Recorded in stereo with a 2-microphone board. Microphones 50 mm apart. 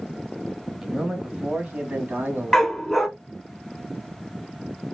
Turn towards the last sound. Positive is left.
turn(degrees=5)  # may be behind; listen again after turning